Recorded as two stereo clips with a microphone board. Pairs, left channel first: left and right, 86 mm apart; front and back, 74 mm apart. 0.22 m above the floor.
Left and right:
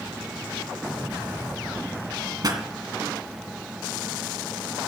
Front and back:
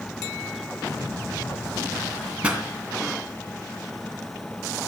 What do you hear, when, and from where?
2.4 s a pop: 110° right, 2.5 m